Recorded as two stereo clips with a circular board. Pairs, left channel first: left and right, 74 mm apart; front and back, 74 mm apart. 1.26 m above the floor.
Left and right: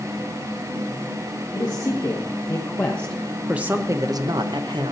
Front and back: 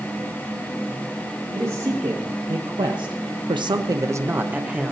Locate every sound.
1.5 s a man speaking: 135° left, 1.8 m; by 4.9 s 100° right, 1.1 m